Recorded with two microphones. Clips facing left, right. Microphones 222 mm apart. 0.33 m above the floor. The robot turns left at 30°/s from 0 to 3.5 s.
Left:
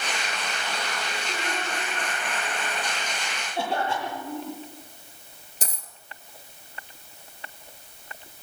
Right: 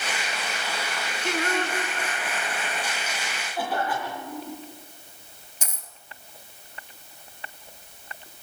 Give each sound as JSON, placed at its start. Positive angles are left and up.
{"t": 1.2, "sound": "singing", "azimuth_deg": -110, "distance_m": 2.5}
{"t": 3.5, "sound": "a cough", "side_deg": 25, "distance_m": 9.5}
{"t": 5.6, "sound": "a dropped coin", "side_deg": 35, "distance_m": 1.6}